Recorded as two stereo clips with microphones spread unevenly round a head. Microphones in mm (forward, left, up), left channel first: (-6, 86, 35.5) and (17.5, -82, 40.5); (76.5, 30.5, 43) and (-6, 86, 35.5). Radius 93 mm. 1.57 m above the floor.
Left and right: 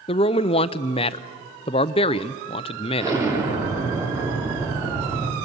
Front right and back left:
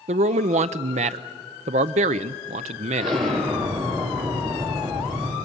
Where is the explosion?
155° right, 3 m.